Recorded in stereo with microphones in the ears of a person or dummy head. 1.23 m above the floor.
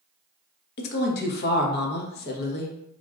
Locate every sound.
0.8 s a woman speaking: 55° left (ahead or behind), 0.9 m